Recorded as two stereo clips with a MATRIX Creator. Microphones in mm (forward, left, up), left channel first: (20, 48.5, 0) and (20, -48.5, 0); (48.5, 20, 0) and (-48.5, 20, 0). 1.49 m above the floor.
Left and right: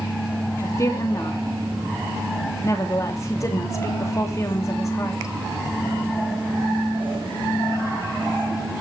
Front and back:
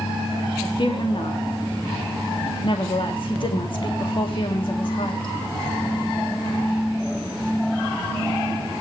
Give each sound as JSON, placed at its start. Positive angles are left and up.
{"t": 0.6, "sound": "a woman speaking", "azimuth_deg": 35, "distance_m": 2.5}